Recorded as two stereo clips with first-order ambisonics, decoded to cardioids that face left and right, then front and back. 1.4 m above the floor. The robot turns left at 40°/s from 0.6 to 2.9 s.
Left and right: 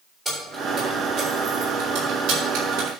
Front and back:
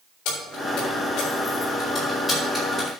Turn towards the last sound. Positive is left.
turn(degrees=-105)